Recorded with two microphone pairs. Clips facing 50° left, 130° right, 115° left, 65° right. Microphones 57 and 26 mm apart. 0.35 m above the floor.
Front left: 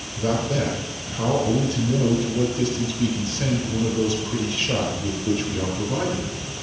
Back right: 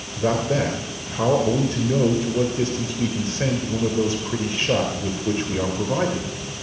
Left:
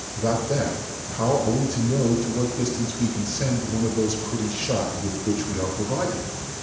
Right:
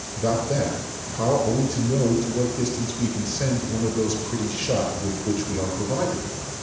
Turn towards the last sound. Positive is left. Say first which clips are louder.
# back right 2 dB, even
turn(degrees=-140)